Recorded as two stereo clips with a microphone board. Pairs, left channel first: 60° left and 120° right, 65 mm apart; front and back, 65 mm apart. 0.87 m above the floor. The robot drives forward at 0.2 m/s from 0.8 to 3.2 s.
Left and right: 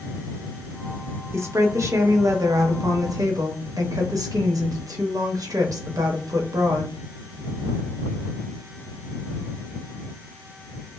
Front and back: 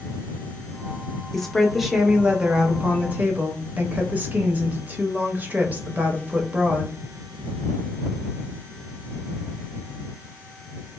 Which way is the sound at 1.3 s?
85° right.